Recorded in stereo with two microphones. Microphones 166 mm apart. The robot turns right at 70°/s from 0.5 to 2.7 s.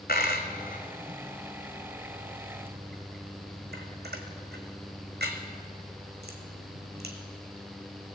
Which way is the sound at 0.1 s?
70° left (ahead or behind).